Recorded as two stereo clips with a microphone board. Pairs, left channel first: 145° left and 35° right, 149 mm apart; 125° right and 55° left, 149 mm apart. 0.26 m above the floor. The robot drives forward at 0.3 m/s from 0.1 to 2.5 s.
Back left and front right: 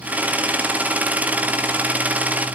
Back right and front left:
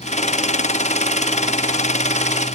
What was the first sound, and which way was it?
Only background noise.